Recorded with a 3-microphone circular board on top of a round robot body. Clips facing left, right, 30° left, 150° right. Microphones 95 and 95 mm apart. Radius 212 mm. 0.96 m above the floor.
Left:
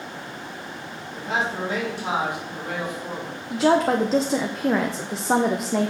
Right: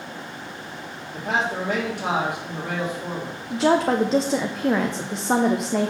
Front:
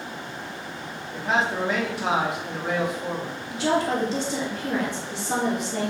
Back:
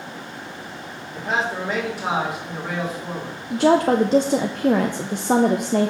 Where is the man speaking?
60° right, 3.5 m.